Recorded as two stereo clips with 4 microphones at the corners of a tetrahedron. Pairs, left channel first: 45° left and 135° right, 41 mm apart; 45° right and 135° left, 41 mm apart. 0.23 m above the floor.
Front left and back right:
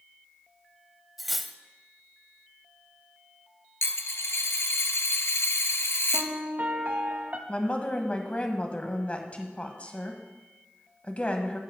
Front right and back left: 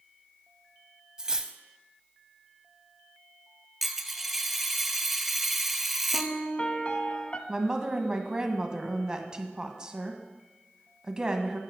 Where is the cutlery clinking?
140° left, 0.5 m.